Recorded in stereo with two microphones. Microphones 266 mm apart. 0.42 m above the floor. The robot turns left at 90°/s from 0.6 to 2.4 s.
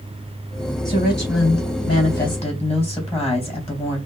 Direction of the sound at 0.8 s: 165° left.